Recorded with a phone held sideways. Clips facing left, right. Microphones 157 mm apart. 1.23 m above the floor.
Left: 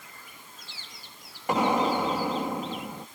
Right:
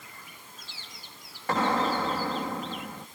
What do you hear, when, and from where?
1.5 s an explosion: 15° left (ahead or behind)